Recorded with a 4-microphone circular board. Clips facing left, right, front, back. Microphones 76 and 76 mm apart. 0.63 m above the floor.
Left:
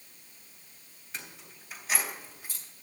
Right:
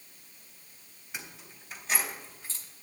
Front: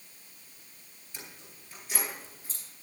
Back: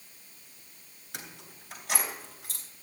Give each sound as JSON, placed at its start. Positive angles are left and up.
{"t": 1.1, "sound": "keys jangling", "azimuth_deg": -170, "distance_m": 2.5}